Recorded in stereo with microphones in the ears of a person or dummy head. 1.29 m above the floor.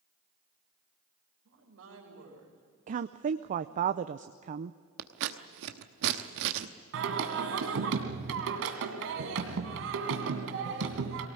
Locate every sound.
1.4 s a woman speaking: 85° right, 5 m
2.9 s a woman speaking: 40° right (ahead or behind), 0.6 m
5.0 s scissors: 55° right (ahead or behind), 1.1 m
6.9 s singing: 60° right (ahead or behind), 2 m